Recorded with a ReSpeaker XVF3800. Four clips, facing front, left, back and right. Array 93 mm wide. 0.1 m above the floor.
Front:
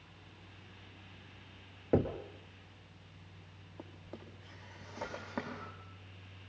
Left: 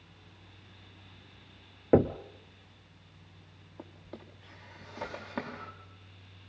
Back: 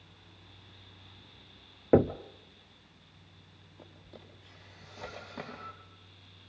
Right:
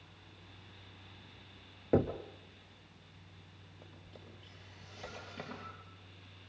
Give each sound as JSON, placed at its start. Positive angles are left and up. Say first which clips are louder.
{"t": 1.9, "sound": "knocking", "louder": "left 6 dB, back 7 dB", "azimuth_deg": 135, "distance_m": 1.1}
{"t": 3.8, "sound": "a drawer", "louder": "left 9 dB, front 3 dB", "azimuth_deg": 65, "distance_m": 6.0}